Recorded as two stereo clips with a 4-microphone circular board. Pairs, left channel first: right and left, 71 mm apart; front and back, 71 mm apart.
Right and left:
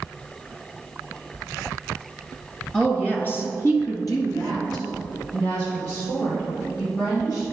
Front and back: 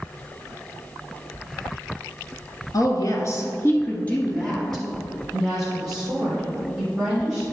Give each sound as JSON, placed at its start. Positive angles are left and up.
{"t": 2.7, "sound": "a woman speaking", "azimuth_deg": -10, "distance_m": 1.9}